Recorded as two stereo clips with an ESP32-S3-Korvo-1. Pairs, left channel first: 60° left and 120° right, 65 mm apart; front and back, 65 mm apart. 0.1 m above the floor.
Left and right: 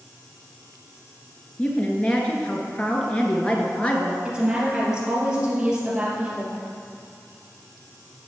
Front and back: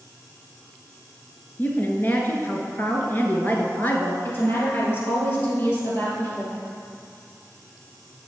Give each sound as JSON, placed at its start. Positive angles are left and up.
{"t": 1.6, "sound": "a woman speaking", "azimuth_deg": 15, "distance_m": 1.2}
{"t": 4.2, "sound": "a woman speaking", "azimuth_deg": -45, "distance_m": 2.5}